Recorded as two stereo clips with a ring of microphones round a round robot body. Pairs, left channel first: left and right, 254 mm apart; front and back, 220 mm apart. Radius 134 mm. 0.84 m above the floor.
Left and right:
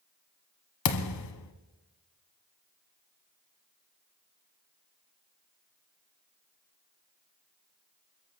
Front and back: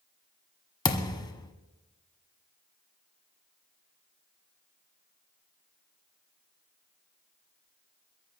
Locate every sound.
0.8 s a thud: 70° left, 1.4 m